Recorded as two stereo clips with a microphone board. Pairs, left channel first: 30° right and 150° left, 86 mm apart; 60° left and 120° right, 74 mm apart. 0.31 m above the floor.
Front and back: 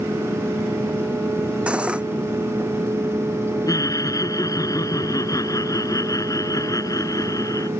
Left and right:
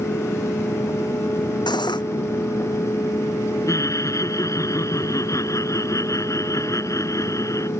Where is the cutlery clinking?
75° left.